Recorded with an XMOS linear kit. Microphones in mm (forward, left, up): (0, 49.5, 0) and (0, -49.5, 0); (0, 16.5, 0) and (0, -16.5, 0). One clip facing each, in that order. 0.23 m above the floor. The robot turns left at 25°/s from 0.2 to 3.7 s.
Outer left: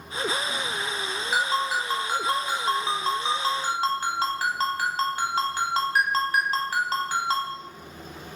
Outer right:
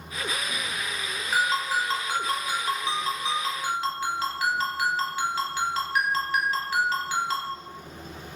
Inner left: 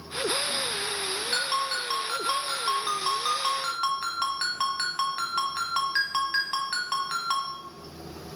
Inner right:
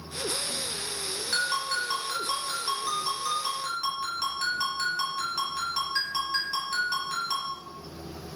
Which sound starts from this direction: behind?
A ringtone, at 1.3 s.